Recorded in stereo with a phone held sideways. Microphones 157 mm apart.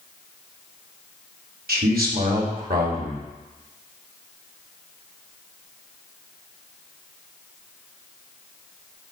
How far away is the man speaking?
About 2.5 m.